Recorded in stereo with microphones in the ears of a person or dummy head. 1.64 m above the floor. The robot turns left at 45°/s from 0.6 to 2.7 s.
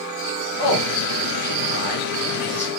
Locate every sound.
0.6 s a man speaking: 45° left (ahead or behind), 1.3 m; by 2.7 s 35° left (ahead or behind), 1.3 m